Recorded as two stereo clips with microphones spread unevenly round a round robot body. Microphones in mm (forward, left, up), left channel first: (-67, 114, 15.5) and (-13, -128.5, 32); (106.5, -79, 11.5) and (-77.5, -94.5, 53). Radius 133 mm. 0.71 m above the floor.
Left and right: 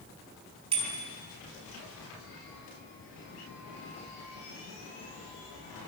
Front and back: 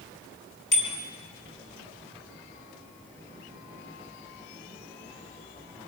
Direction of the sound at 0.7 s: 5° right.